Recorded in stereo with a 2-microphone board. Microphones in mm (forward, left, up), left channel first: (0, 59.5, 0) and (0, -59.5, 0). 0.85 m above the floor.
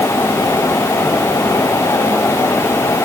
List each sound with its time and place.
Only background noise.